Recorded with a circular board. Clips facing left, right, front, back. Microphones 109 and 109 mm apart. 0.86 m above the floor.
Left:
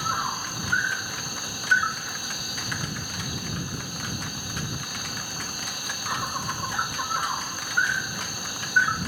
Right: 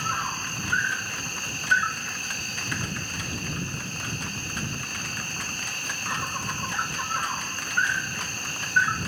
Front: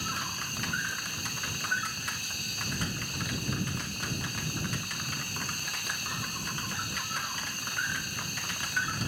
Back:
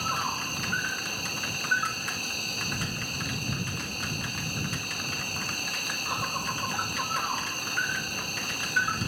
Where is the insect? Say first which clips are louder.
Left 1 dB, back 6 dB; 165° left.